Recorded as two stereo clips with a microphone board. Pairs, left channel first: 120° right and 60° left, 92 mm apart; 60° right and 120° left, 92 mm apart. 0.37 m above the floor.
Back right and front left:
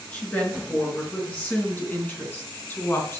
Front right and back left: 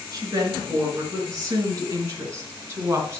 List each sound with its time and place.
0.1 s a woman speaking: 165° left, 4.5 m; by 3.2 s straight behind, 3 m